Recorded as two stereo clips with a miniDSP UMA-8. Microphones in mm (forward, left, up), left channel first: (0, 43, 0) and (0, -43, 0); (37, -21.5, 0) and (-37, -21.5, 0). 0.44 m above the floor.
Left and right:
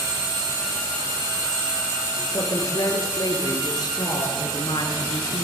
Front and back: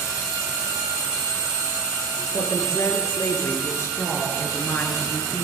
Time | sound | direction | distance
2.3 | a woman speaking | 45° left | 7 m